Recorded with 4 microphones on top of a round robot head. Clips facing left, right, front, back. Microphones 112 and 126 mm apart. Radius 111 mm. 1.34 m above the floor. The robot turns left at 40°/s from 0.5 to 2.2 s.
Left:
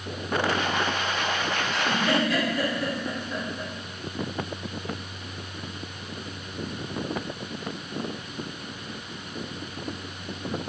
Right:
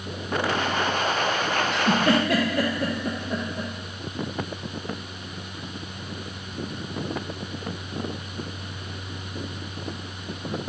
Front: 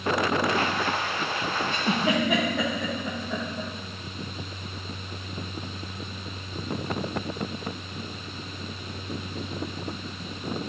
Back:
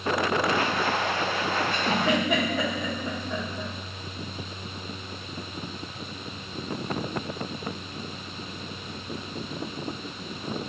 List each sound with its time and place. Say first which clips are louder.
1.7 s a giggle: right 4 dB, front 1 dB; 70° right, 0.6 m; by 3.7 s 90° right, 0.6 m